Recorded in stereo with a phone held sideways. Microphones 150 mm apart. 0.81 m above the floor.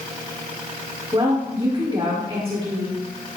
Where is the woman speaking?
40° right (ahead or behind), 1.8 m.